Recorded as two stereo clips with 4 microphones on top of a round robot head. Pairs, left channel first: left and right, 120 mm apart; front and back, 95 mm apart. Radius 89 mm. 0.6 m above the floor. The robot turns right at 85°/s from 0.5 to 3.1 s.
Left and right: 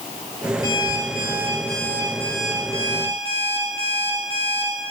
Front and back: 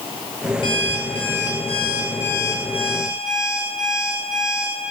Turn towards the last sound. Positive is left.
turn(degrees=-120)